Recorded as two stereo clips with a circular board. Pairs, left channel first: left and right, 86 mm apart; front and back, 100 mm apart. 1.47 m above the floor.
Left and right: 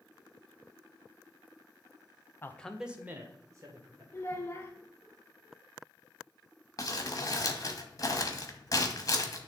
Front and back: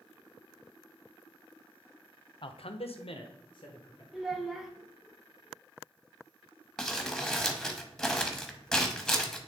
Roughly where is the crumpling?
Left.